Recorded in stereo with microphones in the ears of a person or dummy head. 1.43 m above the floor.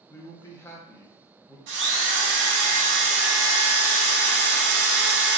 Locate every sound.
0.1 s a man speaking: 15° left (ahead or behind), 0.6 m
1.7 s a drill: 85° right, 1.6 m